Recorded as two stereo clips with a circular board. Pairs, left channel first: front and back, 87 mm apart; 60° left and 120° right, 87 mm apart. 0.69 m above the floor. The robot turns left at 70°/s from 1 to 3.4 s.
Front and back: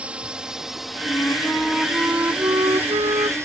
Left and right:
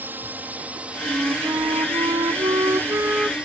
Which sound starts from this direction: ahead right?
A flute, at 1.1 s.